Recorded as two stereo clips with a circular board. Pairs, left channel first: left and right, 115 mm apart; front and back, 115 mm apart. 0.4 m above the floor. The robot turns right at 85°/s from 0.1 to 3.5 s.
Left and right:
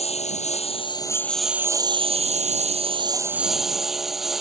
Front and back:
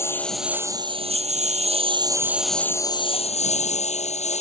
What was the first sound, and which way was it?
A lawn mower, 65° left.